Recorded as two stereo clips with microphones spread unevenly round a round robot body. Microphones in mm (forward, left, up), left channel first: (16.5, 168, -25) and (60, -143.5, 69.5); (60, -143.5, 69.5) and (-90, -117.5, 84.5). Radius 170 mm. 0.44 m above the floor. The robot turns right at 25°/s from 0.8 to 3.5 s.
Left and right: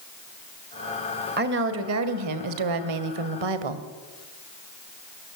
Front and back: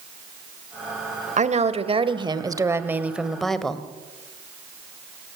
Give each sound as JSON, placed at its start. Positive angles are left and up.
{"t": 1.4, "sound": "a woman speaking", "azimuth_deg": -150, "distance_m": 2.0}